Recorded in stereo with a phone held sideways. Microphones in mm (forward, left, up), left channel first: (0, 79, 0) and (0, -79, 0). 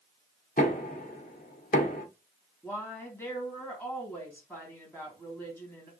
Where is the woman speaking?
10° left (ahead or behind), 2.5 m.